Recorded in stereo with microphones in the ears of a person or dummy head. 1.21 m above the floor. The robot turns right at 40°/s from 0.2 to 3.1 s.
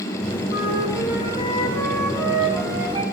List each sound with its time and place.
0.5 s a flute: 120° left, 2.5 m; by 3.0 s 140° right, 2.5 m